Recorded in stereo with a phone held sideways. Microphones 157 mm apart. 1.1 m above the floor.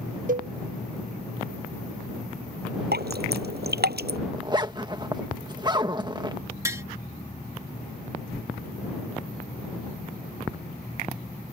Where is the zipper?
25° right (ahead or behind).